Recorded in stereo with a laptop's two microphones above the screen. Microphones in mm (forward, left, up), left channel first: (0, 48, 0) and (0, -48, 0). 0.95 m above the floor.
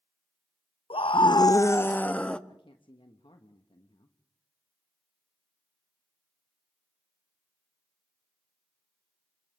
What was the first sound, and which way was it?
A scream, 70° left (ahead or behind).